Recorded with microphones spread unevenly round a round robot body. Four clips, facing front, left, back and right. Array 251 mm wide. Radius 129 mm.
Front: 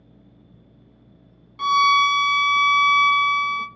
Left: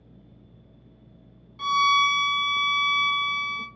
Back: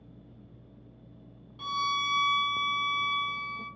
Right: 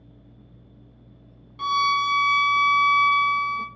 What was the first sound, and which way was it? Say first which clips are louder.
A violin: left 1 dB, front 14 dB; 15° right.